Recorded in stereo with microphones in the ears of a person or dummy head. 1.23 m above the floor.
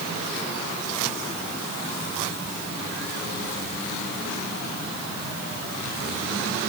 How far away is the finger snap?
I don't hear a finger snap.